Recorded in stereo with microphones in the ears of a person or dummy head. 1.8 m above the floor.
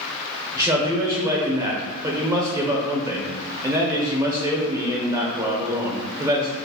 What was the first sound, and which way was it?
A man speaking, 15° right (ahead or behind).